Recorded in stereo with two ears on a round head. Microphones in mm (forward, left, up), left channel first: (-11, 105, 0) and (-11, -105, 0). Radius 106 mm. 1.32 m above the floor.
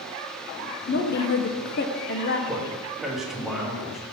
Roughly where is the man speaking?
Centre.